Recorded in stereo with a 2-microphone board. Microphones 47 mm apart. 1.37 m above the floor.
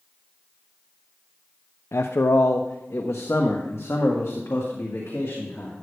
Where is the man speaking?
70° left (ahead or behind), 0.5 m; by 5.7 s 50° left (ahead or behind), 2 m.